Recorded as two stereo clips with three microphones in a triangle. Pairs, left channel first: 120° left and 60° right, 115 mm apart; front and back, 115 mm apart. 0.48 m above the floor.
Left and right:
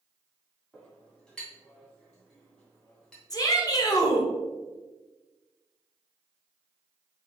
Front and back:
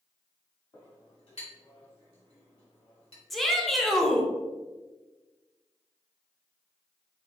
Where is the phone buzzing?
I don't hear a phone buzzing.